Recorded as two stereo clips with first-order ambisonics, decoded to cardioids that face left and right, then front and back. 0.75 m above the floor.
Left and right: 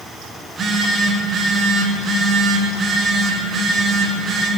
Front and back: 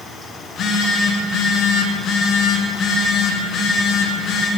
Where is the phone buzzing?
40° right, 0.8 m.